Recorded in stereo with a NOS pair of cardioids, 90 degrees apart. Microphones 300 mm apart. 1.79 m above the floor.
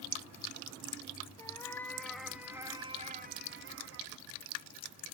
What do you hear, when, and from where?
1.4 s a cat meowing: 10° left, 4 m; by 4.2 s 75° right, 2 m